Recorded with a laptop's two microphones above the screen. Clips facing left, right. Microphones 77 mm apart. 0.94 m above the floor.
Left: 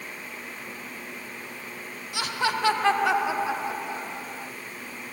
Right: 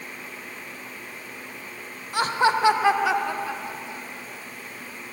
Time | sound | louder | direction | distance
2.1 | laughter | right 6 dB | 40° right (ahead or behind) | 0.9 m